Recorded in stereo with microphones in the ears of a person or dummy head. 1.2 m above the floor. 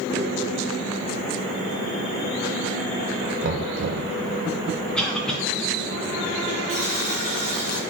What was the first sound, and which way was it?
Knocking, 55° right (ahead or behind).